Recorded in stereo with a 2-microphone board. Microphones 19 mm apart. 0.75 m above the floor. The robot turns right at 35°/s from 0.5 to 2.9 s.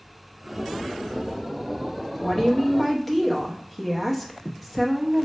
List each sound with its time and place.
2.2 s a woman speaking: 20° left (ahead or behind), 0.7 m; by 5.3 s 10° left (ahead or behind), 0.7 m